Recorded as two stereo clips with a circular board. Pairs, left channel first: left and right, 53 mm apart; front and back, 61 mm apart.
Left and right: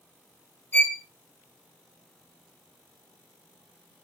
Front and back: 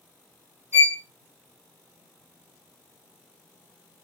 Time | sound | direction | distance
0.7 | a violin | 135° left | 1.4 m